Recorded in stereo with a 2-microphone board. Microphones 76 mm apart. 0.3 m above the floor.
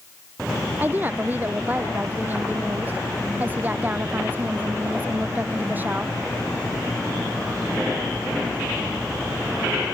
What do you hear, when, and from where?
0.8 s a woman speaking: 25° right (ahead or behind)